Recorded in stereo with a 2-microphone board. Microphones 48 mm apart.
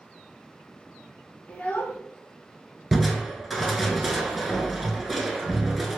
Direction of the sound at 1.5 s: 25° left (ahead or behind).